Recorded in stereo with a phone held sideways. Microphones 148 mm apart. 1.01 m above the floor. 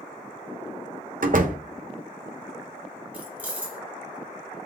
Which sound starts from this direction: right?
A door slam, at 1.2 s.